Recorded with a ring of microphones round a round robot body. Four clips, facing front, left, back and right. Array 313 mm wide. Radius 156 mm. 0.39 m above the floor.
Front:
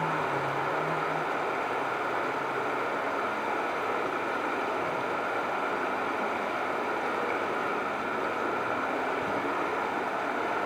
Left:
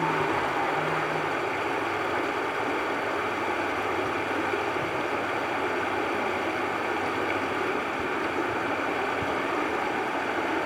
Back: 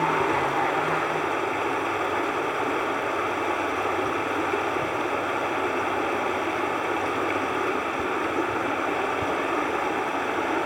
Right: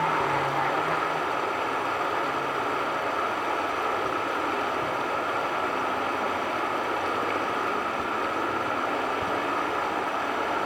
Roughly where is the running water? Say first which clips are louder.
Right 1 dB, back 6 dB; behind left.